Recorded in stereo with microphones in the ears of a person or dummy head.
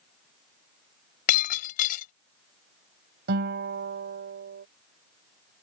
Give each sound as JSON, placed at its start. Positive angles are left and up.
{"t": 1.3, "sound": "breaking glass", "side_deg": 50}
{"t": 3.3, "sound": "a guitar", "side_deg": -60}